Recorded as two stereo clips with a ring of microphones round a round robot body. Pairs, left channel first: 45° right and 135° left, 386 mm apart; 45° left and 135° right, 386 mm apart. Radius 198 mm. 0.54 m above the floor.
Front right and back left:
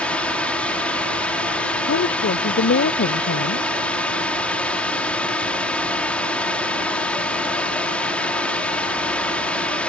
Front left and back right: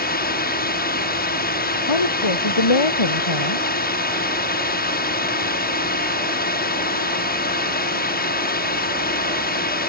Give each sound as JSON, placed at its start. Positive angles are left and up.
{"t": 0.0, "sound": "a drone", "azimuth_deg": 40}
{"t": 1.9, "sound": "a woman speaking", "azimuth_deg": 15}